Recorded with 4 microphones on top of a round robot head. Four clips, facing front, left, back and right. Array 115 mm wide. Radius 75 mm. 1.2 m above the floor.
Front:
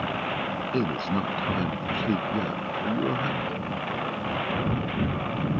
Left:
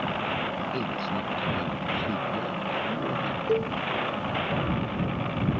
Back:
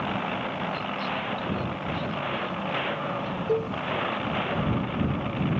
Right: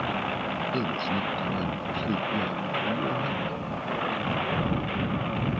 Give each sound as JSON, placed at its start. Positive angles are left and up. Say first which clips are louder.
{"t": 0.7, "sound": "a man speaking", "louder": "right 2 dB, front 4 dB", "azimuth_deg": -10}
{"t": 3.5, "sound": "a cowbell", "louder": "left 8 dB, back 6 dB", "azimuth_deg": 135}